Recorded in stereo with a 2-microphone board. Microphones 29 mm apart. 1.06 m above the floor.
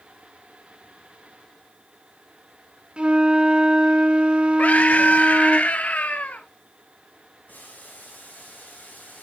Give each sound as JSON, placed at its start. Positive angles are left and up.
{"t": 3.0, "sound": "a flute", "side_deg": -40, "distance_m": 2.5}
{"t": 4.6, "sound": "a scream", "side_deg": 55, "distance_m": 0.8}
{"t": 7.5, "sound": "boiling", "side_deg": 75, "distance_m": 5.5}